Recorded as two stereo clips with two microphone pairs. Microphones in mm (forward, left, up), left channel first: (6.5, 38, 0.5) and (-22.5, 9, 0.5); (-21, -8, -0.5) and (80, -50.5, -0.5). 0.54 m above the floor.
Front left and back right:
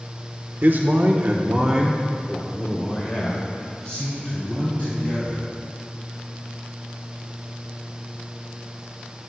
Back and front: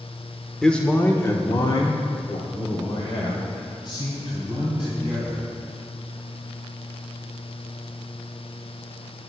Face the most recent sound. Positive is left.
turn(degrees=105)